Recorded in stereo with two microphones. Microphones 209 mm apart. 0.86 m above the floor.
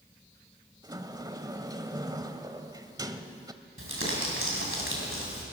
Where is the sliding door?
20° right (ahead or behind), 1.1 m.